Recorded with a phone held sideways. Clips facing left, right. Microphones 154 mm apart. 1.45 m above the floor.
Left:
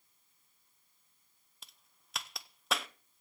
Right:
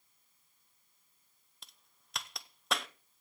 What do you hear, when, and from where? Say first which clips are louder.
1.6 s a crack: even; centre (ahead or behind), 0.8 m